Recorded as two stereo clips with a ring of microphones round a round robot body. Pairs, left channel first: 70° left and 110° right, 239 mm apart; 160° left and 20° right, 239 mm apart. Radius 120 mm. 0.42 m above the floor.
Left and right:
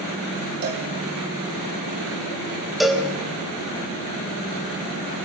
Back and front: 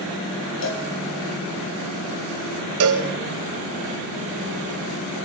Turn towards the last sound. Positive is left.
turn(degrees=-25)